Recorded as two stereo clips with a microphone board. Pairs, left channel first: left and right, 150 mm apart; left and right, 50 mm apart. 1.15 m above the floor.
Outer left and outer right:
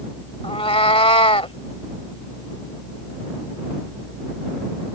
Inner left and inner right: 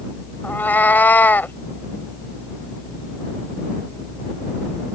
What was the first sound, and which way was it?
A cat meowing, 40° left (ahead or behind).